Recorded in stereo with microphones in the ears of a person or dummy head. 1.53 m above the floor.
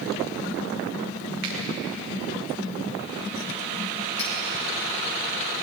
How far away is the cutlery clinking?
About 3 m.